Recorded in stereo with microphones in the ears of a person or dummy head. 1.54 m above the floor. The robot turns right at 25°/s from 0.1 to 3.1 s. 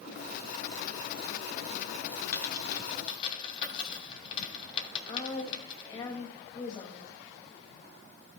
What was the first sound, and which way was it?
A dropped coin, 20° left (ahead or behind).